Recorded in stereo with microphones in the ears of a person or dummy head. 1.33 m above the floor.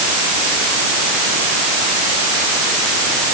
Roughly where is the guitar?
No guitar in this recording.